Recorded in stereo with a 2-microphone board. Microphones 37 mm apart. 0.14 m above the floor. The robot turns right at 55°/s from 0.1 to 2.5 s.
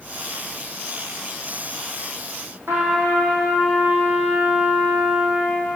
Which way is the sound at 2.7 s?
80° right.